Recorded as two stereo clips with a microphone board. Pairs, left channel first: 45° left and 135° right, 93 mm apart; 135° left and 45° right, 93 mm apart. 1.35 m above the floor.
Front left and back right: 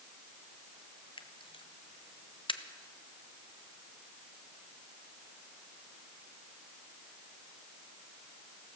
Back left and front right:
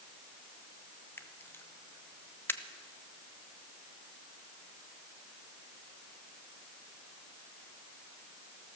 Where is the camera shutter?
70° left, 0.7 m.